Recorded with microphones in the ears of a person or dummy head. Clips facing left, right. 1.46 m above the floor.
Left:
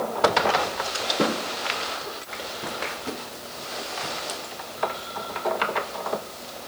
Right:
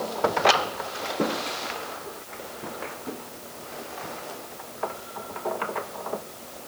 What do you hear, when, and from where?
Only background noise.